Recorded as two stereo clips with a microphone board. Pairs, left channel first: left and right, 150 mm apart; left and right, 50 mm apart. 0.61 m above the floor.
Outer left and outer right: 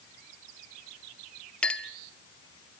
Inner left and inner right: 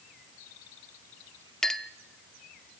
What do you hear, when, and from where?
1.6 s a clink: 5° left (ahead or behind), 0.9 m